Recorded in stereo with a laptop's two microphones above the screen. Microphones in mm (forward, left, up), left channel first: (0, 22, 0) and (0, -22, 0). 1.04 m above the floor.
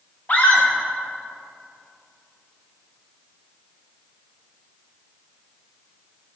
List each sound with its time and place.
0.3 s a scream: 35° left (ahead or behind), 1.4 m